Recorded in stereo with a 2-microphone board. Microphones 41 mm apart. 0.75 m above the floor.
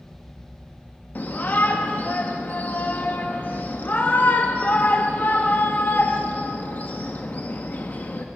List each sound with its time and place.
1.1 s a shout: 50° left (ahead or behind), 0.6 m